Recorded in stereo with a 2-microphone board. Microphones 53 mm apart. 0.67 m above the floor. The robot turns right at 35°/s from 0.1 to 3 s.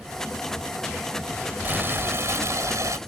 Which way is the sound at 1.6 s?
140° right.